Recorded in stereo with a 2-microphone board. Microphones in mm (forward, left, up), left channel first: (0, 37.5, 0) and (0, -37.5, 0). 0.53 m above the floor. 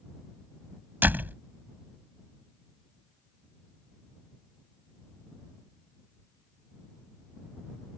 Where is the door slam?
25° right (ahead or behind).